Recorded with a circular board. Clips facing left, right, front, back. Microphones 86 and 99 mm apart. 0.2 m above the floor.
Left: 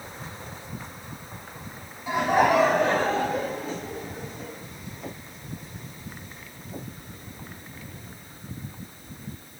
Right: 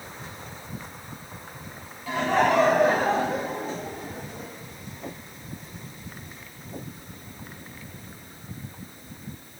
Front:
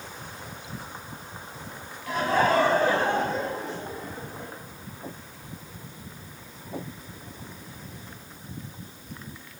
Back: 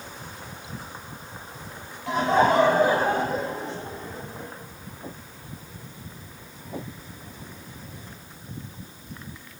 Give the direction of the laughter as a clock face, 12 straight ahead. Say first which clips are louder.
Left 1 dB, back 3 dB; 7 o'clock.